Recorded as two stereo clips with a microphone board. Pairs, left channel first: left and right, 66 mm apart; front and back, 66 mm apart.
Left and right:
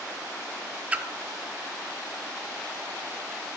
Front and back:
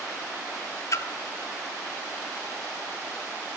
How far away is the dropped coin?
I don't hear a dropped coin.